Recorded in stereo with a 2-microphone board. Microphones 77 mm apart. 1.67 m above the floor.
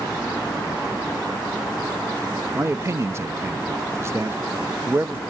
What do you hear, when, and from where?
2.5 s a man speaking: 35° right (ahead or behind), 0.6 m